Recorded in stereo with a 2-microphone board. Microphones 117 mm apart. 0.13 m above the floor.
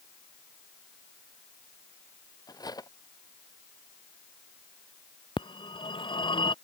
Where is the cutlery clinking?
35° left (ahead or behind).